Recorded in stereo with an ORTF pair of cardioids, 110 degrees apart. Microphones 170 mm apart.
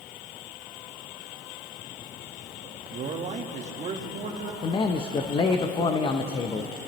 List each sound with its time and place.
2.9 s a man speaking: 50° right, 1.3 m; by 4.5 s 45° right, 2.5 m
4.6 s a man speaking: 30° left, 0.8 m